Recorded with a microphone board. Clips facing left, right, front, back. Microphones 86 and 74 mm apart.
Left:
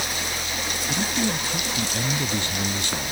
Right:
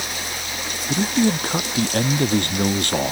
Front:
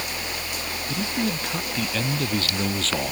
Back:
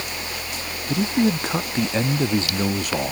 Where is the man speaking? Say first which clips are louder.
Right 7 dB, back 7 dB; 130° right; by 3.1 s 100° right.